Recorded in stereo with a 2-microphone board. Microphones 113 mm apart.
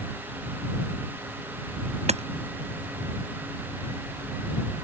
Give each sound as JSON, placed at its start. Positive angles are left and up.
{"t": 2.1, "sound": "hammering", "side_deg": -75}